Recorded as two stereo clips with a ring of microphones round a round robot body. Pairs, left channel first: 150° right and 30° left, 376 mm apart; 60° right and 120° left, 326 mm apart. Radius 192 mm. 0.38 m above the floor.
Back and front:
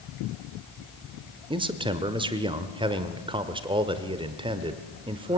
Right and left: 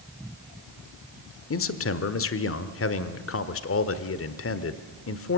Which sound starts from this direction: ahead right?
A man speaking, at 1.5 s.